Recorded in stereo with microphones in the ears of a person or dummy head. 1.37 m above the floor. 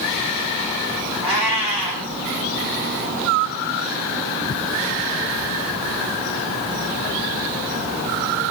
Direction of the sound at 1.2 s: 5° right (ahead or behind).